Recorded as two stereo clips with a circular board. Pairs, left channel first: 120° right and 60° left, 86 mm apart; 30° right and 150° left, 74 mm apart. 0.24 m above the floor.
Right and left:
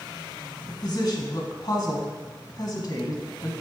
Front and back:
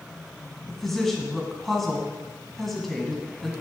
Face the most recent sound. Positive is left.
turn(degrees=-115)